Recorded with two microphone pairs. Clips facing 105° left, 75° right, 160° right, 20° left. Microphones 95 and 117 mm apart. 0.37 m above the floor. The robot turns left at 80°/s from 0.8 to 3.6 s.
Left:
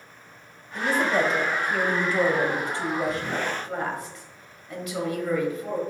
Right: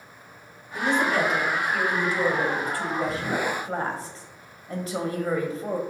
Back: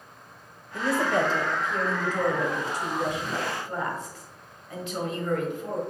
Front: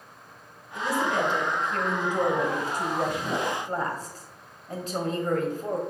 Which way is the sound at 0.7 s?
160° right.